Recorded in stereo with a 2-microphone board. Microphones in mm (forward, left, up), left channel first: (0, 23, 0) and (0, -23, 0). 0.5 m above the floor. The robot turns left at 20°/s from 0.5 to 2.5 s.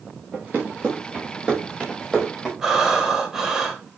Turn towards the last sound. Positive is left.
turn(degrees=-10)  # may be behind; listen again after turning